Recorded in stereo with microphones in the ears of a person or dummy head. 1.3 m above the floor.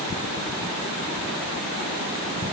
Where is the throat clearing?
No throat clearing in this recording.